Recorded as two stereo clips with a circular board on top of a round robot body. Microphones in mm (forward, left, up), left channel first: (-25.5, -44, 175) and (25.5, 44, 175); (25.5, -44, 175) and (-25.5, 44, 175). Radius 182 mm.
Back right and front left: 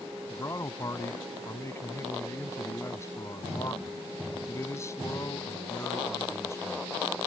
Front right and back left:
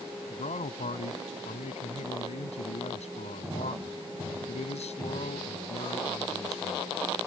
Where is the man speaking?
55° right.